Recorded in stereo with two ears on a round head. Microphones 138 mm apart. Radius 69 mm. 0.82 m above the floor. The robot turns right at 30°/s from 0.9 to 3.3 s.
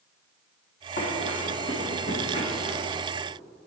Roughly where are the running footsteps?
Left.